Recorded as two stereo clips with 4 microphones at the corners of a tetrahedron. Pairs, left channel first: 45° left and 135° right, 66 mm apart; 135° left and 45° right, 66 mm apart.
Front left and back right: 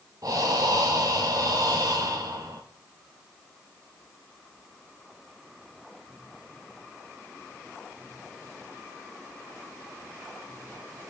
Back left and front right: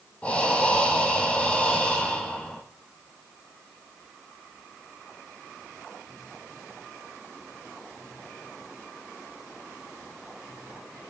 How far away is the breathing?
About 1.7 m.